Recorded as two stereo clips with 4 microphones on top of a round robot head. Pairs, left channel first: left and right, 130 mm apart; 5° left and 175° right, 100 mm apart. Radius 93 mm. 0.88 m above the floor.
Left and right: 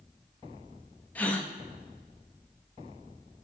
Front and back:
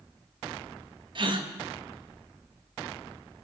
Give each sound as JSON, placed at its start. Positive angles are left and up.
{"t": 1.1, "sound": "a gasp", "azimuth_deg": 165, "distance_m": 1.5}